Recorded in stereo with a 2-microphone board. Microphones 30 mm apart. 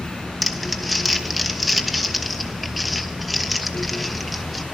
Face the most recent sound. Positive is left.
turn(degrees=0)  # may be behind; listen again after turning